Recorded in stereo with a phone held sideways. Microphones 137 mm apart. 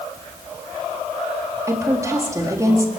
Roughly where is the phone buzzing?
No phone buzzing in this recording.